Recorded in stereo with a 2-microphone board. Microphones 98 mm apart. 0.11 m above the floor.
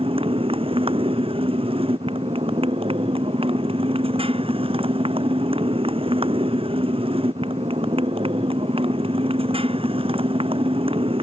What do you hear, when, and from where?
0.0 s a motorcycle: 75° right (ahead or behind)